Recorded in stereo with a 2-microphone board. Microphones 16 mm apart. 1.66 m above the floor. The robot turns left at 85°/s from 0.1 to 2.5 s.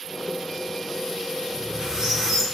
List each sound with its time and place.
1.5 s a squeak: 90° right, 1.2 m; by 2.4 s 170° right, 1.2 m